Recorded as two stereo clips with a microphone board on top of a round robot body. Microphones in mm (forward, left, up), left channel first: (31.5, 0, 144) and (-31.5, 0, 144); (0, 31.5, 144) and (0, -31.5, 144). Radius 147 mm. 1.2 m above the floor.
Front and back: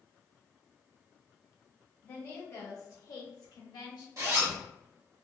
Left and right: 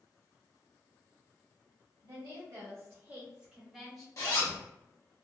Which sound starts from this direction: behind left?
A zipper, at 4.2 s.